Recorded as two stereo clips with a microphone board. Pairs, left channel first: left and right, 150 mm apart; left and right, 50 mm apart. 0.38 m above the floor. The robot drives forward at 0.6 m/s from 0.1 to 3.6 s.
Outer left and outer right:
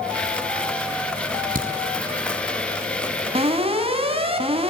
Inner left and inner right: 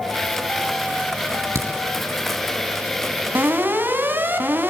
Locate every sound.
1.2 s a crack: 70° right (ahead or behind), 6.5 m; by 1.7 s 65° right (ahead or behind), 7 m
3.4 s an alarm: 40° right (ahead or behind), 4 m